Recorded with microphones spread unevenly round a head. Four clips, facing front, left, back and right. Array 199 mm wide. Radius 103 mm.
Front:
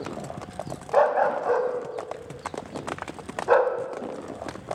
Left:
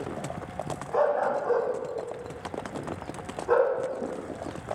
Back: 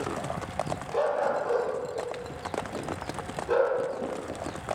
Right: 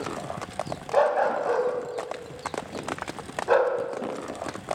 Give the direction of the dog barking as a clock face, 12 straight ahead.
1 o'clock.